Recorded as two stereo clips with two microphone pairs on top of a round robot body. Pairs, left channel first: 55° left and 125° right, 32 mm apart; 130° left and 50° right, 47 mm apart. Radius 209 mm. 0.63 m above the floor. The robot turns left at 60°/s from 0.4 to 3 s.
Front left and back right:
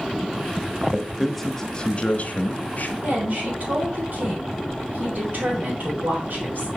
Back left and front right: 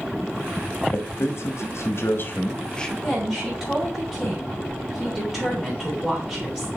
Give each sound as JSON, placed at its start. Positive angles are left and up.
{"t": 0.9, "sound": "a man speaking", "azimuth_deg": 165, "distance_m": 1.4}
{"t": 3.0, "sound": "a woman speaking", "azimuth_deg": -130, "distance_m": 3.5}